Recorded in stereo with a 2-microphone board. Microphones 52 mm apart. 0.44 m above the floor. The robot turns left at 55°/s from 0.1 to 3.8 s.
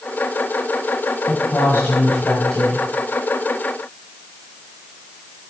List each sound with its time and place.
1.3 s a woman speaking: 80° left, 3 m; by 2.8 s 10° right, 3 m